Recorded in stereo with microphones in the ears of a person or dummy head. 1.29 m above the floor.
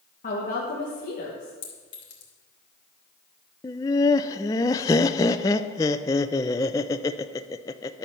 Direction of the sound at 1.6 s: 60° left (ahead or behind).